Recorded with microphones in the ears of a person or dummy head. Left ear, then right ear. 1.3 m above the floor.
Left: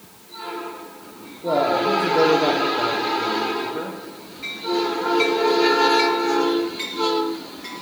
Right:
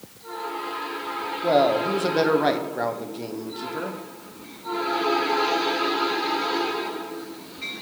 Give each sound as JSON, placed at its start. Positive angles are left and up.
{"t": 1.4, "sound": "a man speaking", "side_deg": -40, "distance_m": 0.7}